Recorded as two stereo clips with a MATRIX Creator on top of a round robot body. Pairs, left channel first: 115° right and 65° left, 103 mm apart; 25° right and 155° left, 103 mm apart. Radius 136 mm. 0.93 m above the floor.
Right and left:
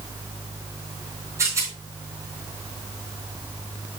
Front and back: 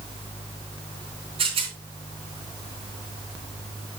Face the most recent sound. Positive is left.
turn(degrees=130)